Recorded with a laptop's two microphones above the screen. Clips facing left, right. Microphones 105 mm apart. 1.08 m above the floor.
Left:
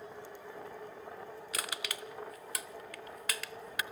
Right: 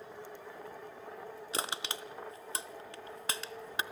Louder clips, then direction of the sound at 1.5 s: Right 3 dB; 30° right (ahead or behind).